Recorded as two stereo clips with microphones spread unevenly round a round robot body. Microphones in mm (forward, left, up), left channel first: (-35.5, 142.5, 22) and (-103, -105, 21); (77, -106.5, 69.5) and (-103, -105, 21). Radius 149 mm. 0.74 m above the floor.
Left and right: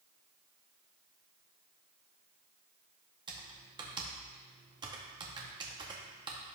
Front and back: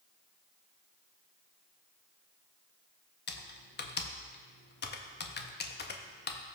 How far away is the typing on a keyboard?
About 0.8 m.